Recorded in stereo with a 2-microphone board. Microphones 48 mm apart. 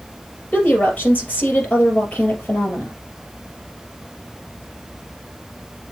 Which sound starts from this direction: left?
A woman speaking, at 0.5 s.